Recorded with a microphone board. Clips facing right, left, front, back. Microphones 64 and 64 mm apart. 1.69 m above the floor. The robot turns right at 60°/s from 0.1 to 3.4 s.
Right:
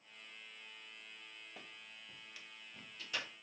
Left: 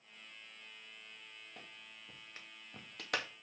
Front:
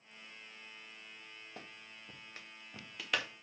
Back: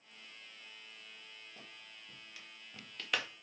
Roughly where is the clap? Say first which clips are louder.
Even, front 3 dB; ahead.